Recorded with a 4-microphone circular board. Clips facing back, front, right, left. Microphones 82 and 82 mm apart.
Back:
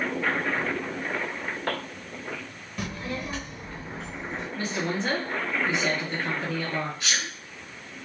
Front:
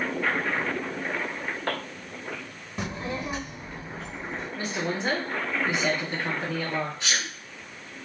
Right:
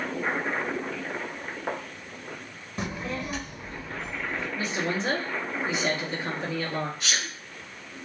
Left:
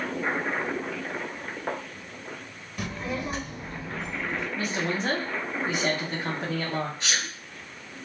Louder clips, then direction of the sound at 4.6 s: Back 1 dB, even; 70° left.